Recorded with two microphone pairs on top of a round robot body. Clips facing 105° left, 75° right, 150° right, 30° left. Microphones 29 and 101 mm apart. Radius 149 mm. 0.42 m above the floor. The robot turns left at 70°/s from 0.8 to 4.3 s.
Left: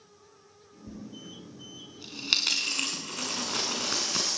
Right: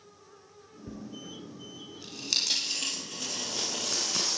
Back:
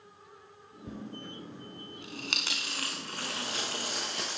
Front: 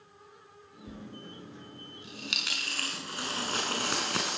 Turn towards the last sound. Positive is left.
turn(degrees=25)